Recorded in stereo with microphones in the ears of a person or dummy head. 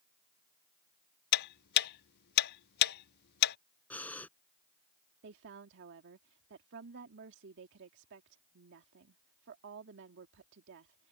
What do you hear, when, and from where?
1.3 s ticking: 50° left (ahead or behind)
3.9 s breathing: 10° left (ahead or behind)
5.2 s a woman speaking: 60° right (ahead or behind)